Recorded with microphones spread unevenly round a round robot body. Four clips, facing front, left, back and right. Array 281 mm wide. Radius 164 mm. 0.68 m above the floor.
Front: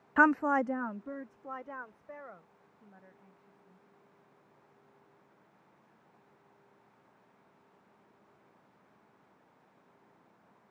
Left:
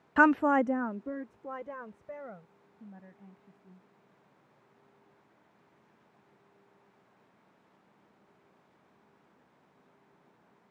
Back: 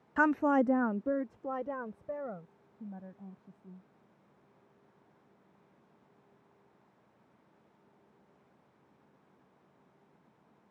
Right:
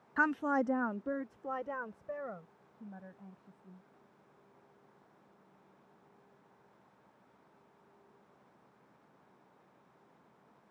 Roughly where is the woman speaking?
Ahead left.